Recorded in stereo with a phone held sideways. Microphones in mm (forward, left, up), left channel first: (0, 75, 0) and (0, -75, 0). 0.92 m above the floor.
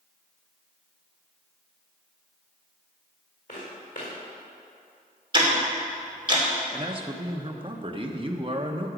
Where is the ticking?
35° right (ahead or behind), 2.5 m.